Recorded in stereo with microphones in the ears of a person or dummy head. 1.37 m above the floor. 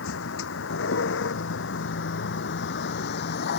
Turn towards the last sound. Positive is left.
turn(degrees=60)  # may be behind; listen again after turning